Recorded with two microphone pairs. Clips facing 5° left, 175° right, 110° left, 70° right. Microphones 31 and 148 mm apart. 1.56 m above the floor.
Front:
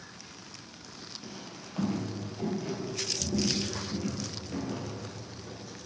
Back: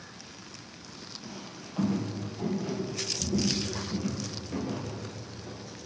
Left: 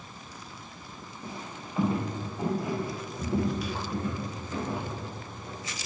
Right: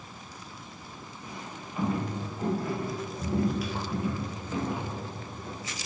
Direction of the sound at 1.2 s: 75° left.